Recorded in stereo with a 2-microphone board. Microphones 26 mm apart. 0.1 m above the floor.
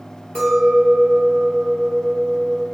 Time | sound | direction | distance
0.3 | a clink | 40° left (ahead or behind) | 1.5 m